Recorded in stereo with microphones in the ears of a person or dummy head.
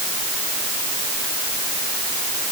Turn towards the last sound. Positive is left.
No sound to turn to.